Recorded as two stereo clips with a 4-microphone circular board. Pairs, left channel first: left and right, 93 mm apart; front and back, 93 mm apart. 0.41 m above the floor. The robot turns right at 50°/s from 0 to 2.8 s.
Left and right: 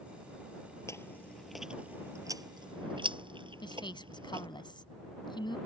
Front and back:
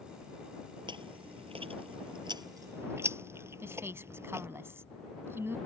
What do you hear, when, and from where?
0.9 s chewing: 145° left; by 4.5 s 115° right
3.6 s a woman speaking: 120° left